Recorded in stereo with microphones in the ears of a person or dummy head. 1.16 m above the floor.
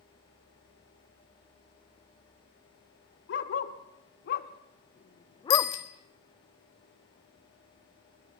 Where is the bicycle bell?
55° left (ahead or behind), 2.5 m.